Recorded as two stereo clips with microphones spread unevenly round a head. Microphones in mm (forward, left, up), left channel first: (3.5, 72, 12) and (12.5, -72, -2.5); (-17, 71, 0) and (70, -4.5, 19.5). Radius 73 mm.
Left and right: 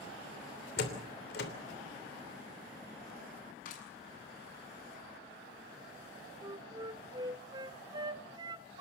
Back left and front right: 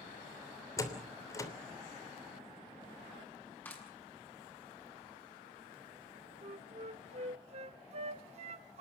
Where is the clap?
65° left, 7.5 m.